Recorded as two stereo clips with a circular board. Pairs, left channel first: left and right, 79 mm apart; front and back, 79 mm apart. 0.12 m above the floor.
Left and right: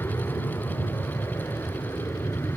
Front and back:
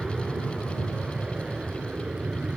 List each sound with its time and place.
0.0 s an aircraft: 105° left; by 2.6 s 110° left